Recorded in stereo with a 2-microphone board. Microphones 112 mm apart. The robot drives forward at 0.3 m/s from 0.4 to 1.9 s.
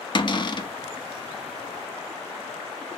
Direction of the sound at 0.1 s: 45° left (ahead or behind).